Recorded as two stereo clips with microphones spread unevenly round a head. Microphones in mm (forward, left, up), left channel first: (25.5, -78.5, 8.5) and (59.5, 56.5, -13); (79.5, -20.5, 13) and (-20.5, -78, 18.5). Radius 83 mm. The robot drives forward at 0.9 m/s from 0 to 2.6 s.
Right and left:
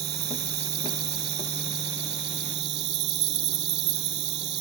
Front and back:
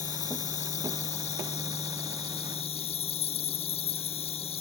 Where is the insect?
80° left; by 4.6 s 85° left.